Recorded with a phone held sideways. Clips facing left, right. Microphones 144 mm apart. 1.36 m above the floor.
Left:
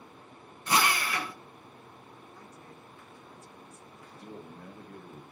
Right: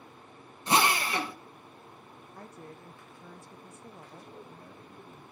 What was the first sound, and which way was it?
A drill, 25° right (ahead or behind).